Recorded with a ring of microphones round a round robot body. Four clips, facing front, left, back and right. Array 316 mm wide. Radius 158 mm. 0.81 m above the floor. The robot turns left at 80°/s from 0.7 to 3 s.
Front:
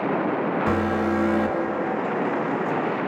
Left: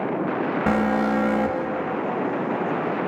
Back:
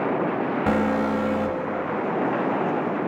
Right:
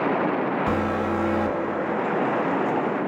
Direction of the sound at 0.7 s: 120° left.